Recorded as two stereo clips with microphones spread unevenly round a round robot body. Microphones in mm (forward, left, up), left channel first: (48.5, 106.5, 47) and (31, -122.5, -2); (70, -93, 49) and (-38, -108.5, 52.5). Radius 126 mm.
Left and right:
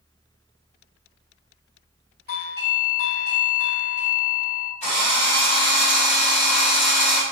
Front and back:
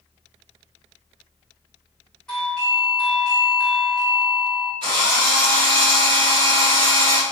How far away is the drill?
About 1.7 m.